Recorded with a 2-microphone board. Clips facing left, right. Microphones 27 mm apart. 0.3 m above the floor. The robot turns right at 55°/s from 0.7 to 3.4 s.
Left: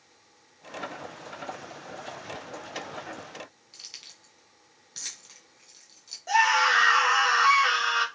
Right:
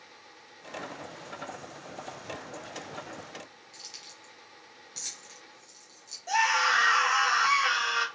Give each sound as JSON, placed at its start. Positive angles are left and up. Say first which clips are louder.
{"t": 3.7, "sound": "keys jangling", "louder": "left 1 dB", "side_deg": 30, "distance_m": 1.8}
{"t": 6.3, "sound": "a scream", "louder": "left 3 dB", "side_deg": 15, "distance_m": 1.8}